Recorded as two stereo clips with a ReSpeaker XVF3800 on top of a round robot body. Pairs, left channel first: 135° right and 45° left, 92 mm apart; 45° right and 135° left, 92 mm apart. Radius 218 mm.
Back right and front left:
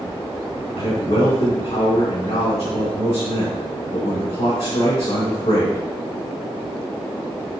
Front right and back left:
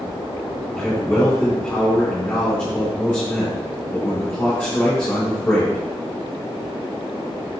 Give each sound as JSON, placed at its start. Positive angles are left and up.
{"t": 0.8, "sound": "a man speaking", "azimuth_deg": -120, "distance_m": 3.5}